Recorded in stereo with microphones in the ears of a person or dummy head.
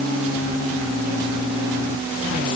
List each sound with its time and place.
Only background noise.